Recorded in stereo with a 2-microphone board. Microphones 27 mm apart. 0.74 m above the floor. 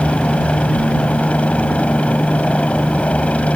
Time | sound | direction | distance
0.0 | a helicopter | 55° left (ahead or behind) | ?